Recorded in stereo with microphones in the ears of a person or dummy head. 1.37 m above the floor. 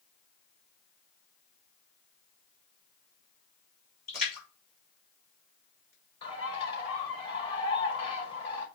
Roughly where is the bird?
Left.